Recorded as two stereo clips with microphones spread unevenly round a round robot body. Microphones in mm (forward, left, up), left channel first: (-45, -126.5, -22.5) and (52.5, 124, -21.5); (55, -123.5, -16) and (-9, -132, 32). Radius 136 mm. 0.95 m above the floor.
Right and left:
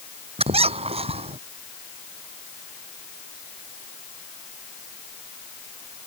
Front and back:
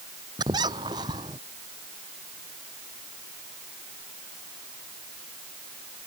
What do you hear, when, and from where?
0.4 s a squeak: 140° left